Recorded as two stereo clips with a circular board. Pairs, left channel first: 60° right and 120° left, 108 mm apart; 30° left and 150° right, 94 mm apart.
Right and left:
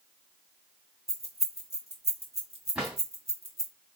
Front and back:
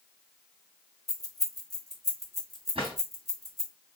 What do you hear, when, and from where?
1.1 s keys jangling: 115° left, 1.6 m
2.8 s a drawer: 155° right, 2.5 m